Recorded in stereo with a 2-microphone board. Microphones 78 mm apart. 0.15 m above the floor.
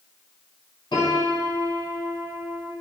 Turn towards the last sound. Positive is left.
turn(degrees=65)  # may be behind; listen again after turning